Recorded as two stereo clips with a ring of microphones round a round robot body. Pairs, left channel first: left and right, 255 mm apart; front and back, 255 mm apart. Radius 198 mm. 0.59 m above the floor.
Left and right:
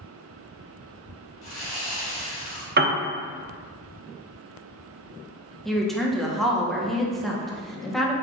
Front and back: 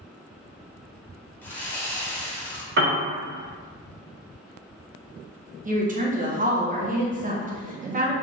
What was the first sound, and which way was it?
Sawing, 80° left.